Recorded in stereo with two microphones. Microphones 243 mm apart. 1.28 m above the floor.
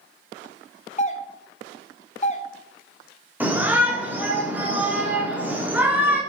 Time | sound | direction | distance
1.0 | a doorbell | 25° left (ahead or behind) | 1.0 m
3.4 | a shout | 5° right (ahead or behind) | 3 m